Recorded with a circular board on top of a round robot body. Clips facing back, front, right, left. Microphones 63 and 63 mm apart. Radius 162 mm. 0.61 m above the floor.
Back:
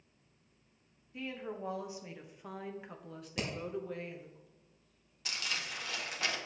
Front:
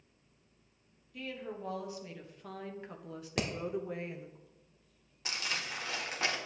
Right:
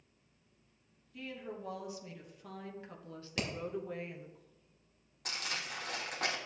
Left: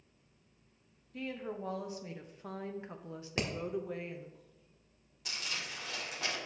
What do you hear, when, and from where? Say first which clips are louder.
1.1 s a woman speaking: back 1 dB, left 4 dB; 125° left, 1.8 m; by 4.4 s 20° right, 1.2 m
3.4 s hammering: front 3 dB, left 2 dB; 30° left, 1.4 m
5.2 s crumpling: front 2 dB, right 1 dB; 60° right, 1.6 m